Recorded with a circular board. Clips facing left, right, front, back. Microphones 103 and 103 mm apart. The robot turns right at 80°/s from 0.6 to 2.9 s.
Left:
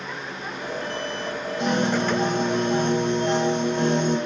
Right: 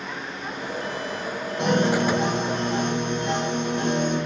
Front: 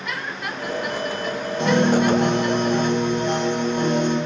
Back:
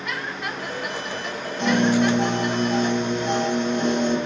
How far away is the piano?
About 5.5 m.